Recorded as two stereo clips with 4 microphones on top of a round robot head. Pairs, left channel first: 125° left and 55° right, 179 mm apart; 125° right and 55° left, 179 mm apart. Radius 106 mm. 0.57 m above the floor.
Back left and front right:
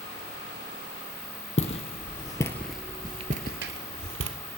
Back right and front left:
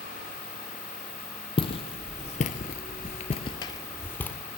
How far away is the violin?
No violin in this recording.